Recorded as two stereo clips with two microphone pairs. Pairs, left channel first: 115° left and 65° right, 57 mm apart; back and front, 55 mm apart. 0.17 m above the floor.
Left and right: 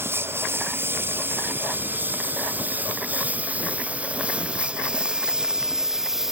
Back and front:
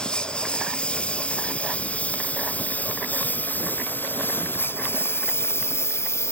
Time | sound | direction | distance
0.0 | a lawn mower | 110° right | ?